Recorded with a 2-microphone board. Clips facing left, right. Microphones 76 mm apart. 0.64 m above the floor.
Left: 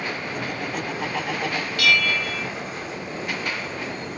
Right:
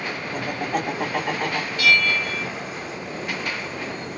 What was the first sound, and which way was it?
Laughter, 55° right (ahead or behind).